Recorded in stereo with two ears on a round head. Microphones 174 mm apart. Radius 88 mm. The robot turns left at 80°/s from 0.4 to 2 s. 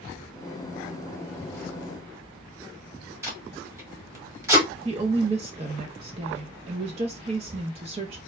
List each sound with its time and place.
3.2 s tape being pulled: 15° right (ahead or behind), 1.4 m
4.8 s a woman speaking: 30° right (ahead or behind), 0.5 m